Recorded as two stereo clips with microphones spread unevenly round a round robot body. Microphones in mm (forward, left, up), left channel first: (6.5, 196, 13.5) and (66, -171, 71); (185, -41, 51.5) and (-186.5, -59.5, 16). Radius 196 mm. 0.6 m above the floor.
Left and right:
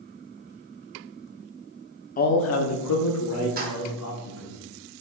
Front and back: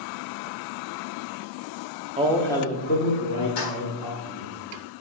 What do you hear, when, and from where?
2.2 s a man speaking: 135° left, 0.7 m; by 4.6 s 50° left, 3 m
3.6 s keys jangling: 10° right, 1.6 m